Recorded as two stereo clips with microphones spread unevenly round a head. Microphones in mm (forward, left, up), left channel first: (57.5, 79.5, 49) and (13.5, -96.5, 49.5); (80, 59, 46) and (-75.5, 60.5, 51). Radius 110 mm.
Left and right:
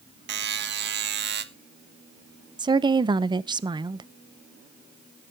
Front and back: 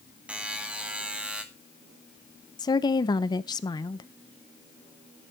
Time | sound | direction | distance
0.3 | a buzzer | 95° right | 1.4 m
2.6 | a woman speaking | 50° right | 0.6 m